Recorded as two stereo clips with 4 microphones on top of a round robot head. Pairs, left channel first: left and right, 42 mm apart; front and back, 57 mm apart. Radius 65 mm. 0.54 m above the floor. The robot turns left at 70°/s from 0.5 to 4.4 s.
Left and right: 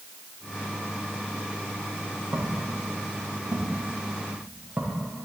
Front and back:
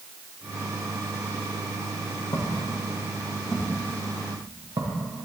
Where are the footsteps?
30° right, 4 m; by 5.0 s 155° right, 3 m.